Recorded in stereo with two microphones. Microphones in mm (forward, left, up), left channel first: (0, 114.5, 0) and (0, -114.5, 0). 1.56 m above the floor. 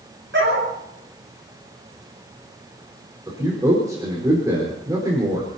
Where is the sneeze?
I don't hear a sneeze.